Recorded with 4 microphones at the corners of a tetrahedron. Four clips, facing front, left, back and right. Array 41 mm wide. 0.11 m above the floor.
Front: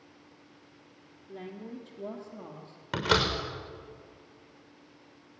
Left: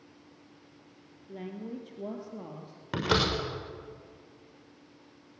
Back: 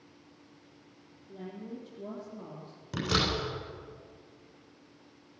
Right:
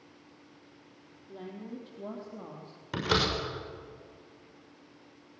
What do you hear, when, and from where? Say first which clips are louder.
1.3 s a woman speaking: left 3 dB, front 1 dB; 50° left, 2.5 m; by 2.8 s 75° left, 3 m
2.9 s a door slam: left 1 dB, front 3 dB; 35° left, 6 m